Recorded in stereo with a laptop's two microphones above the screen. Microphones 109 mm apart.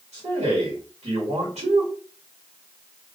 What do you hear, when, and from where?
0.1 s a man speaking: 80° right, 1.5 m